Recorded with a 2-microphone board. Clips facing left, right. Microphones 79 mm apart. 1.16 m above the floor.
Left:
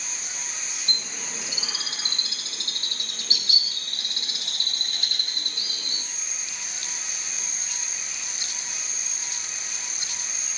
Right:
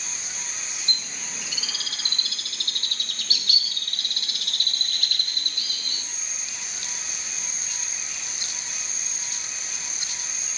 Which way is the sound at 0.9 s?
25° left (ahead or behind).